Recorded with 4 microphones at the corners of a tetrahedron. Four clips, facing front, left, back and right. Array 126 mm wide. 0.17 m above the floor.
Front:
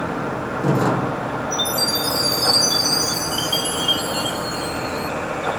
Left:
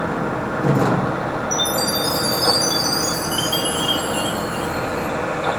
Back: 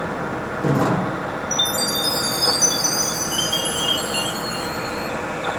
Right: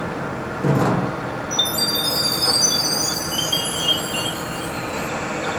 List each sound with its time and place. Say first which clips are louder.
1.5 s a chime: left 4 dB, front 1 dB; straight behind, 1.5 m